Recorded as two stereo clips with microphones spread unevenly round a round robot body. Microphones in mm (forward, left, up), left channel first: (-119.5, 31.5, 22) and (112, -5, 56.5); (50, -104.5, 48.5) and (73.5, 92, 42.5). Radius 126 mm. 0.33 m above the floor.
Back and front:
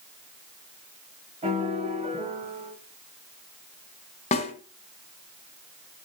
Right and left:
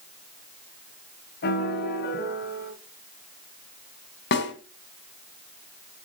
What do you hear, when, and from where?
1.4 s a piano: 75° right, 3 m
4.3 s a snare drum: 130° right, 2 m